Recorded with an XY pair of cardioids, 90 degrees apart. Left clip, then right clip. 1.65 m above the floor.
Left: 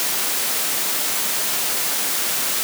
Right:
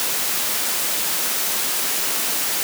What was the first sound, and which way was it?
Only background noise.